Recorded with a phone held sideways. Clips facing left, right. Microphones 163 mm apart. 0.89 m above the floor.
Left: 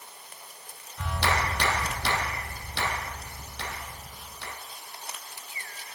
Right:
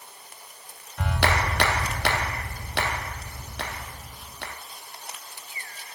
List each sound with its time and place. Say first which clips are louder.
1.0 s a clap: right 3 dB; 75° right (ahead or behind), 0.9 m